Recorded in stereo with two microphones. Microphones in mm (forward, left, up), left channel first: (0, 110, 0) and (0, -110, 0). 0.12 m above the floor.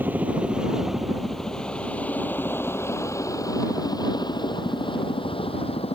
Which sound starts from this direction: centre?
A helicopter, at 0.0 s.